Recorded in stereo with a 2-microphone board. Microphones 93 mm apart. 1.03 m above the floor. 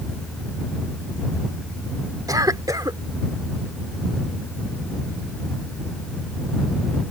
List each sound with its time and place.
2.3 s a cough: 45° right (ahead or behind)